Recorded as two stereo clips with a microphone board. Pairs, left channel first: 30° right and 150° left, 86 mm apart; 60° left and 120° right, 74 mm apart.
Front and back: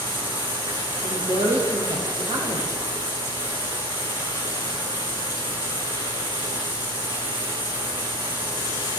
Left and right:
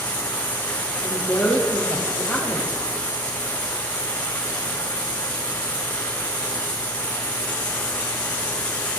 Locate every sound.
0.0 s running water: 130° left, 4.5 m
1.0 s a woman speaking: 145° left, 4 m